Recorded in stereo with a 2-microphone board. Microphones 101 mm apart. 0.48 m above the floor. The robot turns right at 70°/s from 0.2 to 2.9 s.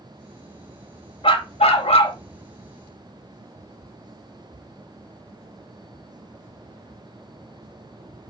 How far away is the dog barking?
About 0.6 m.